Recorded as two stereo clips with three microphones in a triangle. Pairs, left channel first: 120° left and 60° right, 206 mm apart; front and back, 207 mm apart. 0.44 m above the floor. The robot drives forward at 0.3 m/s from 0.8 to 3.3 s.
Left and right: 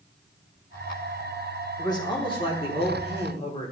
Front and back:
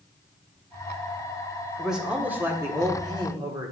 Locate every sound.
1.8 s a man speaking: 90° left, 1.2 m; by 3.7 s 135° left, 1.3 m